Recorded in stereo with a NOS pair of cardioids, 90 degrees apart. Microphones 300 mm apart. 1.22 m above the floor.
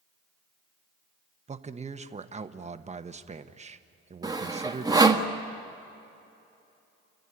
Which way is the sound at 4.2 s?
15° right.